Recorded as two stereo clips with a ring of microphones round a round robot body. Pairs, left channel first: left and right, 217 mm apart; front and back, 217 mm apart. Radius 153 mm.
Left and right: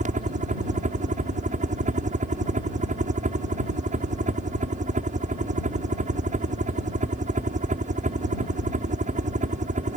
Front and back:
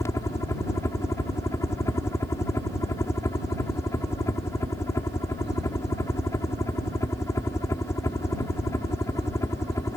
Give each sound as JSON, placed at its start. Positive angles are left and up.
{"t": 0.0, "sound": "a helicopter", "azimuth_deg": -70}